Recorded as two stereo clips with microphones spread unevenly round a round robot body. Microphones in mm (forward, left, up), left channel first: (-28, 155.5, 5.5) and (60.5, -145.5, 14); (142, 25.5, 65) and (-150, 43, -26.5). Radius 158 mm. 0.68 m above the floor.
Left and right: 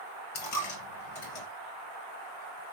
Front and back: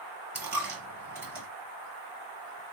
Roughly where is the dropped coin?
Left.